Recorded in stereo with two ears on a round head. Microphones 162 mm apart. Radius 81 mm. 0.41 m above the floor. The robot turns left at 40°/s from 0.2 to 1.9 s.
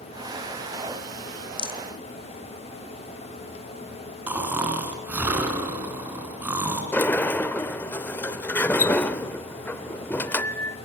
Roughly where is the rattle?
Left.